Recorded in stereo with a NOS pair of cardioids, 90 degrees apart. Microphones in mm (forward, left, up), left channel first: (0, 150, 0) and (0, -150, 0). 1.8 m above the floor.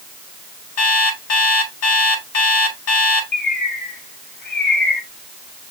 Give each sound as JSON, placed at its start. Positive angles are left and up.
{"t": 0.8, "sound": "an alarm clock", "azimuth_deg": 60, "distance_m": 4.5}
{"t": 3.3, "sound": "a bird", "azimuth_deg": 35, "distance_m": 2.5}